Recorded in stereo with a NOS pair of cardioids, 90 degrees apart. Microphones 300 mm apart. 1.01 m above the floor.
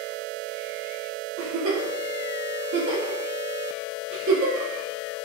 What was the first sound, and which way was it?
A giggle, 45° right.